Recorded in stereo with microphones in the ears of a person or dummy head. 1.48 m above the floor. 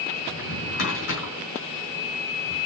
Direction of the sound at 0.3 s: 65° left (ahead or behind).